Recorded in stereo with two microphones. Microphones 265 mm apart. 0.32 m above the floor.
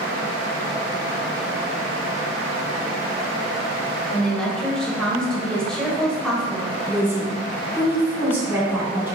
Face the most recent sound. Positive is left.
turn(degrees=-5)  # may be behind; listen again after turning